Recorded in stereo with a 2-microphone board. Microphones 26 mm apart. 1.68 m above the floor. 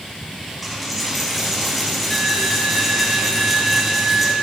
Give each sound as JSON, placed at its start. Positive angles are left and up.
{"t": 0.6, "sound": "a dropped coin", "side_deg": 0, "distance_m": 2.5}